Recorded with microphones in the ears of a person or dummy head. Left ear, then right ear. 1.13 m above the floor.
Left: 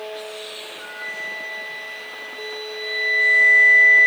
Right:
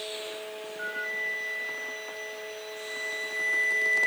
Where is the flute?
40° right (ahead or behind), 3.5 m.